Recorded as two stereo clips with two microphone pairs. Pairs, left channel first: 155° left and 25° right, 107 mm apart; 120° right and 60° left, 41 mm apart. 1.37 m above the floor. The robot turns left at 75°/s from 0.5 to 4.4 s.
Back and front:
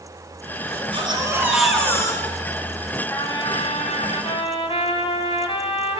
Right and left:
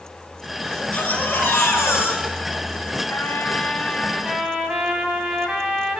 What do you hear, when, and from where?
0.7 s a baby crying: 45° right, 9 m; by 2.8 s 155° left, 9 m
3.1 s a trumpet: 140° right, 4 m; by 6.0 s 120° left, 4 m